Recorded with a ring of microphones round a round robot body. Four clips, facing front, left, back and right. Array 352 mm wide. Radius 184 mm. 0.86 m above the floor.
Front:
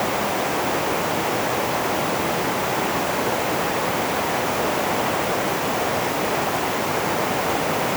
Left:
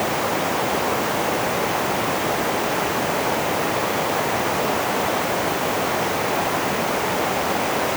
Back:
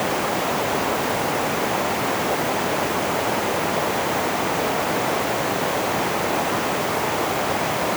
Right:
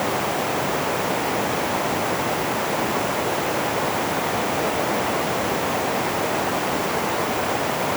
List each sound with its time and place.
Only background noise.